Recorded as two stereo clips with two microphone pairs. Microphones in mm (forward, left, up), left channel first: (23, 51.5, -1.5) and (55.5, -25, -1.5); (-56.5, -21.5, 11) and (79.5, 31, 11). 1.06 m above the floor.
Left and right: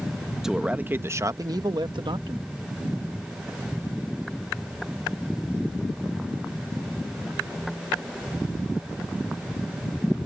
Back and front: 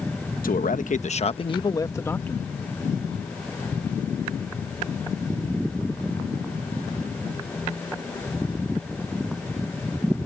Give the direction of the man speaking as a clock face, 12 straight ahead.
5 o'clock.